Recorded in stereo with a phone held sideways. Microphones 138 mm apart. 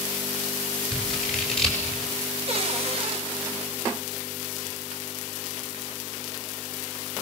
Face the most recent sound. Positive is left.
turn(degrees=-45)  # may be behind; listen again after turning